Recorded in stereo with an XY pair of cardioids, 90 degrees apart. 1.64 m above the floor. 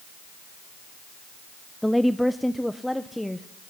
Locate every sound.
1.8 s a woman speaking: straight ahead, 0.8 m; by 3.5 s 5° left, 1.7 m